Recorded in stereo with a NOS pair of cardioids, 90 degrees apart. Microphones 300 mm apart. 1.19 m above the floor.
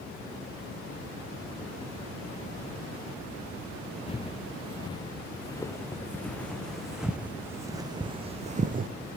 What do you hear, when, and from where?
4.1 s footsteps: 20° left, 5 m; by 8.9 s 35° right, 2.5 m